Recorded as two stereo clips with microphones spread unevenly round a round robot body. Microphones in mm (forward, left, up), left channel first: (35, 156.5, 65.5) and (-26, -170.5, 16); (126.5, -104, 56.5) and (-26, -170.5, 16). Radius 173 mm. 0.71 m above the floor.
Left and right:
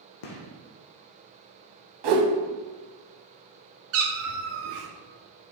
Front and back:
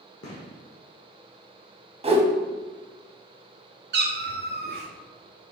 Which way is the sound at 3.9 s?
150° right.